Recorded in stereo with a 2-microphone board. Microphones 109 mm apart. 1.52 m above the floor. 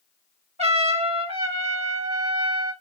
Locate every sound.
0.6 s a trumpet: 75° right (ahead or behind), 2.5 m